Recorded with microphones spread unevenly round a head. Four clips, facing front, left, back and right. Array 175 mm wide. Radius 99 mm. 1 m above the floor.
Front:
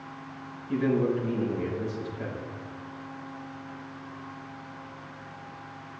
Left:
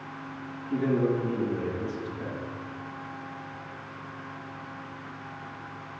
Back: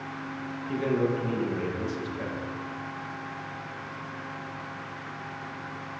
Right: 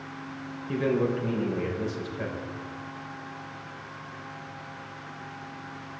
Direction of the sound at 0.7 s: 115° right.